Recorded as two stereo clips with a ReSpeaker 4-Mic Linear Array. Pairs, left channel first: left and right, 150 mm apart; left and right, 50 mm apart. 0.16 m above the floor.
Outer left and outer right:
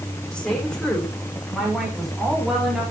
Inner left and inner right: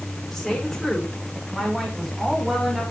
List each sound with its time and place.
0.3 s a woman speaking: 5° left (ahead or behind), 8.5 m; by 2.9 s 5° right (ahead or behind), 6.5 m